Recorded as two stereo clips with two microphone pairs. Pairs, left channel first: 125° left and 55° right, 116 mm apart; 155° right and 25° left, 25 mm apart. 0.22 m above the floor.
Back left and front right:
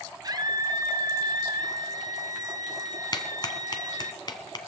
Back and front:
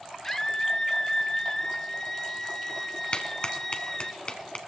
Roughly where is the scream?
Right.